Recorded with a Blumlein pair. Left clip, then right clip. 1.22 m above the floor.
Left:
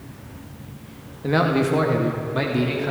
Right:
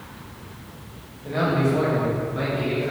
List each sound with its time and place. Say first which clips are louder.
1.2 s a man speaking: left 3 dB; 40° left, 1.9 m; by 2.9 s 30° left, 3 m